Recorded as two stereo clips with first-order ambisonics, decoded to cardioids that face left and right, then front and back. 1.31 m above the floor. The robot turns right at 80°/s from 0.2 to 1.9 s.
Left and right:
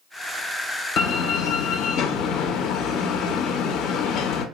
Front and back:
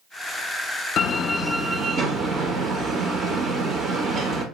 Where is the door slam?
50° left, 0.9 m; by 4.5 s 125° left, 0.9 m.